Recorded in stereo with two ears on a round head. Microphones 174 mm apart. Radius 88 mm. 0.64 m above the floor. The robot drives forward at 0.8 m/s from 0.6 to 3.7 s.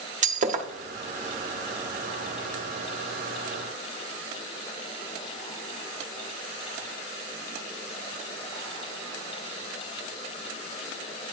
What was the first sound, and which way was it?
Breaking glass, 40° right (ahead or behind).